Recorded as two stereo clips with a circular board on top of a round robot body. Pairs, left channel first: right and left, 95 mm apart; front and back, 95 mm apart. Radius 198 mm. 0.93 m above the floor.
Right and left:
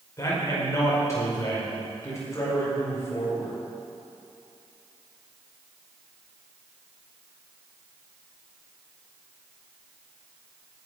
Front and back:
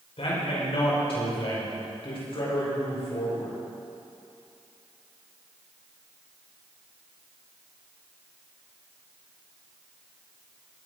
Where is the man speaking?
30° right, 5 m.